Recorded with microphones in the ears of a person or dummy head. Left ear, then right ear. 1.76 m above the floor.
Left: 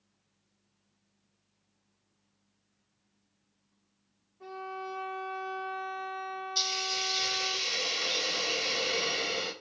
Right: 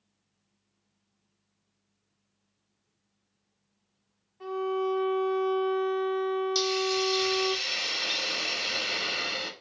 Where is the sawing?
No sawing in this recording.